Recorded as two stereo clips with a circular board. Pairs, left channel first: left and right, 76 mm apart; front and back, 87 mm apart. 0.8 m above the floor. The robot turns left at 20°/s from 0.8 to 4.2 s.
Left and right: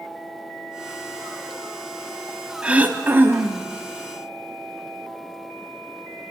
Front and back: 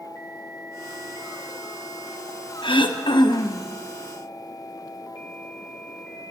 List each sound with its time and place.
2.6 s throat clearing: 20° right, 0.7 m; by 3.7 s 40° right, 0.7 m